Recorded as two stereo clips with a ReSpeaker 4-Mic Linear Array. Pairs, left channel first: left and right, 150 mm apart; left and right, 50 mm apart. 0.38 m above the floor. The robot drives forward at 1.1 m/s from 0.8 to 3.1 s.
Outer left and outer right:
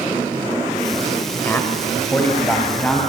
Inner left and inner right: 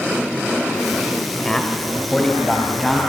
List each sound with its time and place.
1.4 s a man speaking: 15° left (ahead or behind), 1.9 m; by 3.0 s 10° left (ahead or behind), 3.5 m